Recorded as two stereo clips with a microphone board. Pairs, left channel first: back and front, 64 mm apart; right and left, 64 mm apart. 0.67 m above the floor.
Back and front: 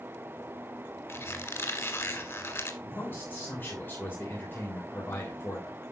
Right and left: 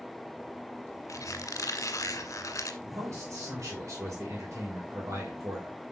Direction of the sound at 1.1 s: 130° right.